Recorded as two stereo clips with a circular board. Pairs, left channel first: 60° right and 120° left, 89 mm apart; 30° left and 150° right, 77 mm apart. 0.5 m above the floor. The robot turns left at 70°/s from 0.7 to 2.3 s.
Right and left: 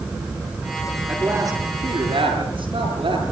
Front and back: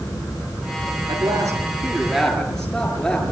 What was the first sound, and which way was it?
A man speaking, 160° right.